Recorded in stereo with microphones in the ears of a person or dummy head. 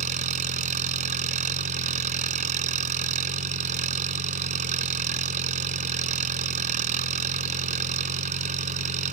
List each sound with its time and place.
0.0 s an engine running: 40° right (ahead or behind)